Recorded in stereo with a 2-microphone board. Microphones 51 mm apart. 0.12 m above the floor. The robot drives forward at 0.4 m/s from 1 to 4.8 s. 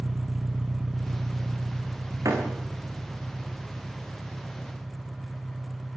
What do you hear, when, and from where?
0.0 s an engine running: 20° right (ahead or behind), 0.8 m; by 6.0 s 5° right (ahead or behind), 2.5 m
2.2 s a door slam: 80° right, 6 m